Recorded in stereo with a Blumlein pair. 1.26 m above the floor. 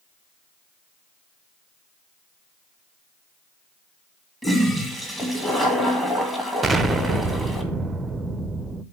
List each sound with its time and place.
4.4 s a toilet flushing: 5° left, 1.9 m
6.6 s an explosion: 10° right, 0.6 m